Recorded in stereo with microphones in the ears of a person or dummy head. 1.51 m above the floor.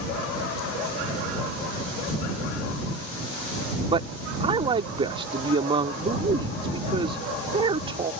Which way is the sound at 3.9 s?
30° right (ahead or behind).